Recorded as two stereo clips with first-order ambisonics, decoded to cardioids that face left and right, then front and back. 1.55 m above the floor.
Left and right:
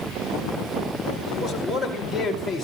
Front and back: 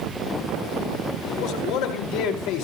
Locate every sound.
1.3 s a man speaking: 10° right, 4 m; by 2.6 s 5° left, 4.5 m